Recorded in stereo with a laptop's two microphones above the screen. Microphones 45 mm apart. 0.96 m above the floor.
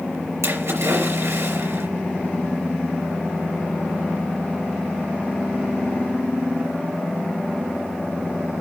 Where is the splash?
75° right (ahead or behind), 4 m.